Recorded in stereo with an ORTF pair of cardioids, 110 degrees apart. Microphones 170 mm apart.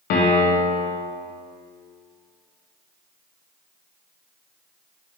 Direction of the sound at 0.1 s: 70° left.